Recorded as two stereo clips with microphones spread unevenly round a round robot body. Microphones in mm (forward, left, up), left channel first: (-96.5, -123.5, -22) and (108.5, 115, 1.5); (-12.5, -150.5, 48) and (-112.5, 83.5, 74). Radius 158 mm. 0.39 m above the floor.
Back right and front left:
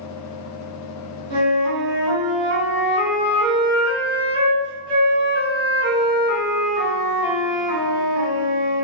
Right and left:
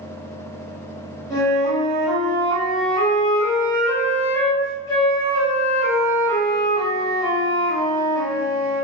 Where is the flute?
15° right, 1.2 m.